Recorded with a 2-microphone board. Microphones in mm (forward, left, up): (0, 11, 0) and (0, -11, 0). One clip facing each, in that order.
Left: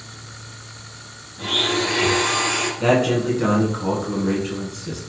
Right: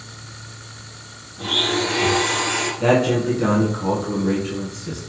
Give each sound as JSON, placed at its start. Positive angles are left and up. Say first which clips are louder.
{"t": 1.4, "sound": "a blender", "louder": "even", "side_deg": 20, "distance_m": 2.5}
{"t": 2.8, "sound": "a man speaking", "louder": "right 1 dB", "side_deg": 15, "distance_m": 1.1}